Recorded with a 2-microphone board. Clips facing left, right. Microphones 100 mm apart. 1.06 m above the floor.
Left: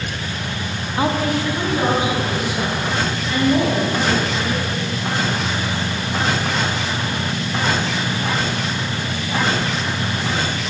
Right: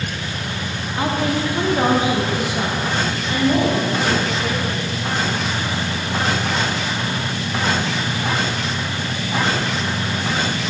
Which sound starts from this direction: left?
A woman speaking, at 1.0 s.